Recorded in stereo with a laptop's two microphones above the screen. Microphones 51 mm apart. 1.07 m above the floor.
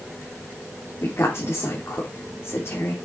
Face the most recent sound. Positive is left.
turn(degrees=55)  # may be behind; listen again after turning